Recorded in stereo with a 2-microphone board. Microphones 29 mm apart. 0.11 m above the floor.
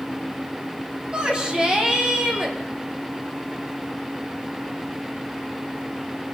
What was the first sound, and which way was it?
A shout, 30° right (ahead or behind).